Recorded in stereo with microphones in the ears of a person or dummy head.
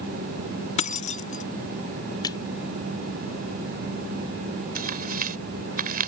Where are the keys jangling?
35° left (ahead or behind).